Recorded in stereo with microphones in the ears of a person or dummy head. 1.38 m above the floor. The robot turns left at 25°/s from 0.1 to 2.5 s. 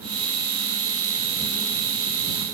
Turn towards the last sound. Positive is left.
No sound to turn to.